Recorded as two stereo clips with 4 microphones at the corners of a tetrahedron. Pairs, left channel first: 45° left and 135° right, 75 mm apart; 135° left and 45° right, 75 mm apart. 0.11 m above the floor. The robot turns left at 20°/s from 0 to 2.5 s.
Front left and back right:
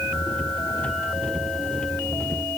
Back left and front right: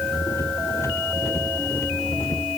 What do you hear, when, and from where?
Only background noise.